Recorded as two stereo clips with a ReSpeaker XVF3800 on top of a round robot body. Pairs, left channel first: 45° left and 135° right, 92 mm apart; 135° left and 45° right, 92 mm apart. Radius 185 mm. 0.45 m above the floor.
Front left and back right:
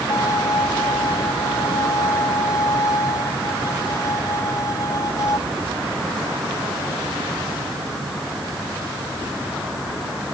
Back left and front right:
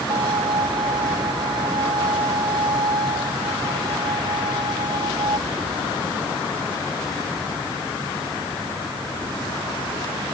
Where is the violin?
10° right.